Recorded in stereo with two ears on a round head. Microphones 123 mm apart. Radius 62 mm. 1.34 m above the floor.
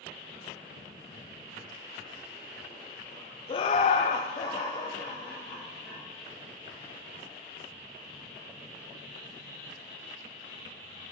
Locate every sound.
3.5 s laughter: 35° left (ahead or behind), 0.6 m; by 6.0 s 20° left (ahead or behind), 1.9 m